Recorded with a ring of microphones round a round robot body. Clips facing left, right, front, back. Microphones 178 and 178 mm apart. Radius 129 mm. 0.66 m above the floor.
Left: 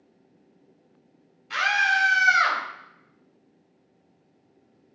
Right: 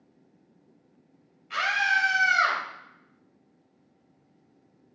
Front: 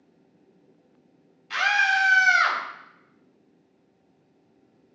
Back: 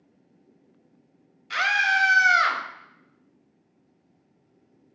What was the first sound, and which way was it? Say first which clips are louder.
A scream: left 3 dB, front 2 dB; 150° left.